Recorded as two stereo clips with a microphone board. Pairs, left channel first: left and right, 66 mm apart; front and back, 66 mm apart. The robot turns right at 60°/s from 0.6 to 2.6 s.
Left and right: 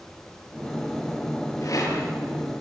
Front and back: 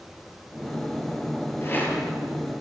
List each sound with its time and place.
1.6 s a rattle: 50° left, 7 m; by 2.6 s 110° left, 7 m